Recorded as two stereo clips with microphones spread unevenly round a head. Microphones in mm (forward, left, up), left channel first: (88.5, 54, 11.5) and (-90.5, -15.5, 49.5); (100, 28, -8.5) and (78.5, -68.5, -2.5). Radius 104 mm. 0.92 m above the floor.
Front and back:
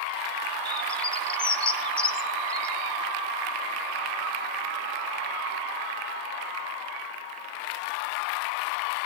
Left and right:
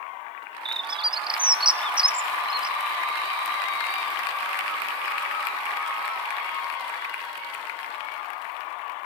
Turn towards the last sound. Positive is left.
turn(degrees=-65)